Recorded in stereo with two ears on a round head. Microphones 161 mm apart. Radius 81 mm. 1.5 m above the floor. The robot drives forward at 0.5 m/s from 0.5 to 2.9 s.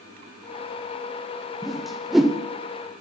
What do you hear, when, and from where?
1.6 s a whoosh: centre (ahead or behind), 0.9 m